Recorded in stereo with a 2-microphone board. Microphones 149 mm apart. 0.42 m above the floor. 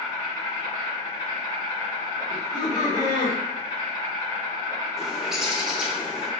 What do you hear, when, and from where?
0.0 s an insect: 25° left (ahead or behind), 1.8 m
2.3 s laughter: 30° left (ahead or behind), 1.2 m
5.0 s a bird: 5° right (ahead or behind), 0.5 m